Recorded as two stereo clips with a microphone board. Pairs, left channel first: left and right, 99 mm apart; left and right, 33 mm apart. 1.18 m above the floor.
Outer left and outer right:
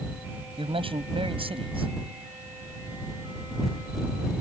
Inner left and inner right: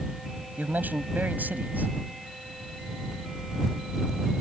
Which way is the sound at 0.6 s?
80° right.